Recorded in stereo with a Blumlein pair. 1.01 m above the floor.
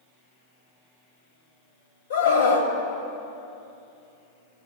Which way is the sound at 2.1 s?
60° left.